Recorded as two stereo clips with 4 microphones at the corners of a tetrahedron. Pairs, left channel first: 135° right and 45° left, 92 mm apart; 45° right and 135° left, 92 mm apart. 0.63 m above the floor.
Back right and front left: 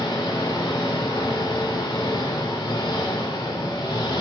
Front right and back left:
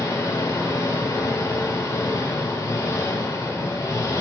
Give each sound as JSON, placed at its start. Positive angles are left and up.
{"t": 0.0, "sound": "an engine running", "azimuth_deg": -100, "distance_m": 0.9}